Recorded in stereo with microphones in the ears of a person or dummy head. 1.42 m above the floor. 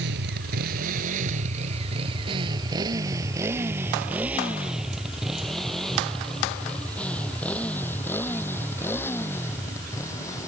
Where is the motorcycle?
60° right (ahead or behind); by 10.5 s 15° left (ahead or behind).